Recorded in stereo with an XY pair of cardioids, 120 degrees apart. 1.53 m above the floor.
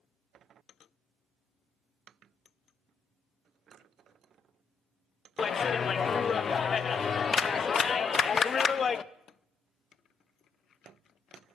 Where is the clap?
35° left, 0.6 m.